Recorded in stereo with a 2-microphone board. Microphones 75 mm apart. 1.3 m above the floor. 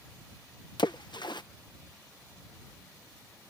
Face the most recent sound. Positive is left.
turn(degrees=75)  # may be behind; listen again after turning